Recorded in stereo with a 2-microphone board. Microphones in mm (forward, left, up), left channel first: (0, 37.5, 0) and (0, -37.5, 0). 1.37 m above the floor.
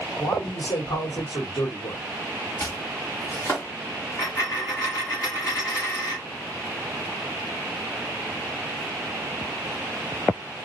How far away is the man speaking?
About 2 m.